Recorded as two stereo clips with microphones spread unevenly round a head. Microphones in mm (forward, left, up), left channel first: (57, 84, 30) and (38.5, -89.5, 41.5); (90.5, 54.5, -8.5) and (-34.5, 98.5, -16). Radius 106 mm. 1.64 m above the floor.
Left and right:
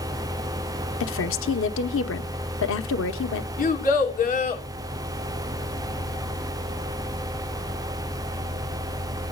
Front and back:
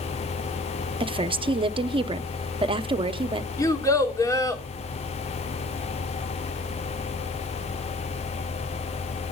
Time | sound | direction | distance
1.0 | a woman speaking | 110° left | 1.0 m
3.6 | a child speaking | 45° left | 2.5 m